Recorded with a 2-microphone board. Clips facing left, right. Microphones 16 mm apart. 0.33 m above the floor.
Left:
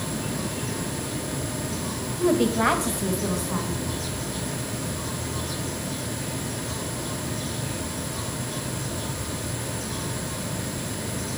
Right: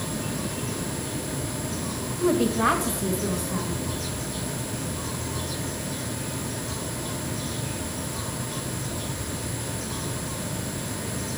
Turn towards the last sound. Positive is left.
turn(degrees=55)  # may be behind; listen again after turning